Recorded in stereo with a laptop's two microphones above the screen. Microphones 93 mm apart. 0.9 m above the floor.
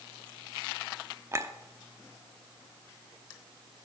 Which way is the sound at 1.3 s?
30° right (ahead or behind).